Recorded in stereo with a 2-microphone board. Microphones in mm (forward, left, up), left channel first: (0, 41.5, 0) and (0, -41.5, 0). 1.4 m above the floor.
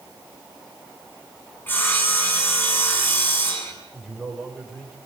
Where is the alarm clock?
No alarm clock in this recording.